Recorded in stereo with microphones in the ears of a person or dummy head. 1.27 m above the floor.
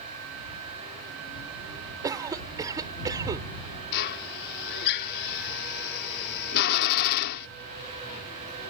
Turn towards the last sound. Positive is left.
turn(degrees=45)  # may be behind; listen again after turning